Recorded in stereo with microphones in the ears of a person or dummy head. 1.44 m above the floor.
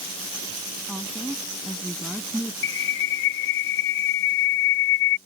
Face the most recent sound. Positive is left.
turn(degrees=85)